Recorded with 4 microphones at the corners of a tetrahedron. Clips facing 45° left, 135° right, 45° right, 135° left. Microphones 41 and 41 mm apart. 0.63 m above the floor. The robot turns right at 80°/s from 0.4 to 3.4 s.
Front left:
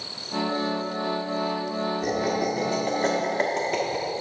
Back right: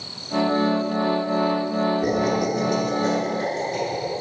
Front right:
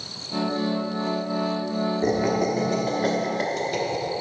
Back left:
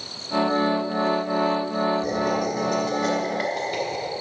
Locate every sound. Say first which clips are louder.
2.0 s laughter: back right 3 dB, front right 1 dB; 55° right, 0.9 m; by 4.1 s 55° left, 0.9 m